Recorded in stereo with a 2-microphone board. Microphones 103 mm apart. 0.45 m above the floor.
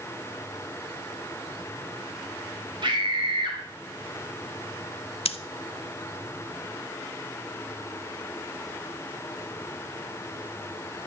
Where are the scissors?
75° left (ahead or behind), 0.8 m.